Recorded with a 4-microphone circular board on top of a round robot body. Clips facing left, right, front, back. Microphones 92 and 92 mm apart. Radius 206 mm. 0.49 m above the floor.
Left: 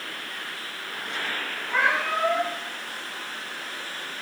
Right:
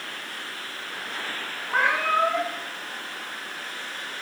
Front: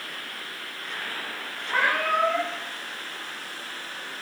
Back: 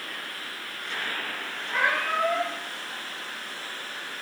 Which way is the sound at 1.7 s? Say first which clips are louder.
Right 2 dB, front 2 dB; 35° right.